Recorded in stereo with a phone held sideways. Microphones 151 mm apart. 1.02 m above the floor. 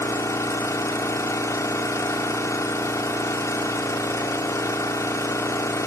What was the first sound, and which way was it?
An engine running, 20° left (ahead or behind).